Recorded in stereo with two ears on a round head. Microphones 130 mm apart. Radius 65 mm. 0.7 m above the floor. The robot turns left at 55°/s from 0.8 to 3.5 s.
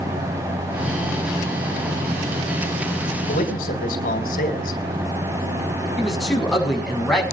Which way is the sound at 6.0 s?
Centre (ahead or behind).